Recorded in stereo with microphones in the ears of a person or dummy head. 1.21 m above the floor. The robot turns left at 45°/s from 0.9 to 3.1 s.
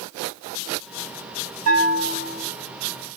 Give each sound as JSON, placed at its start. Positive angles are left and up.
{"t": 1.6, "sound": "a bell", "azimuth_deg": -95, "distance_m": 8.5}